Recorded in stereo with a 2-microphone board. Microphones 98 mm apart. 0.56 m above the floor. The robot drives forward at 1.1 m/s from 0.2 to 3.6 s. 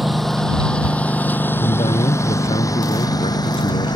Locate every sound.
0.0 s a lawn mower: centre (ahead or behind); by 4.0 s 45° left (ahead or behind)
1.6 s a man speaking: 70° left (ahead or behind); by 3.9 s 85° left